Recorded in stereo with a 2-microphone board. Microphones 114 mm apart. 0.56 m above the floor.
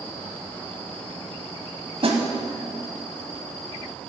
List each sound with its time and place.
2.0 s a snare drum: 55° right (ahead or behind), 1.3 m